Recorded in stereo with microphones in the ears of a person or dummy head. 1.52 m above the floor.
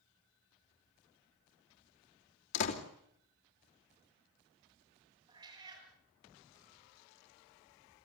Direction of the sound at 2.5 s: 60° left (ahead or behind).